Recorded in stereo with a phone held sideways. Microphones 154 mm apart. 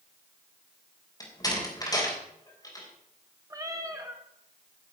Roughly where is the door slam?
Left.